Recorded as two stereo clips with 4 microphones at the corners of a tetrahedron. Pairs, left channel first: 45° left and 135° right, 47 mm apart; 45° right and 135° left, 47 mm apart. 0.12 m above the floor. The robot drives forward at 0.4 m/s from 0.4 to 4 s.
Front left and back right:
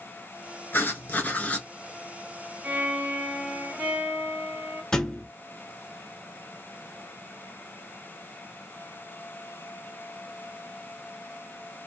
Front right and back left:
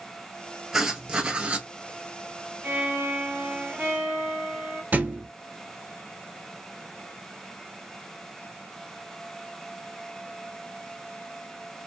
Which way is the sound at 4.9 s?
115° left.